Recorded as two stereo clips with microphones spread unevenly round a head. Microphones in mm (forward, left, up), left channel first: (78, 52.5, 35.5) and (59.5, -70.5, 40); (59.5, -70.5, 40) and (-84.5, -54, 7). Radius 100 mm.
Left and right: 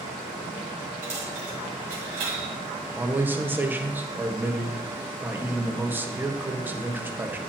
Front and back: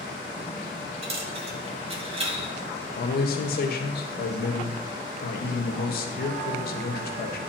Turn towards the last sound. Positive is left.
turn(degrees=-25)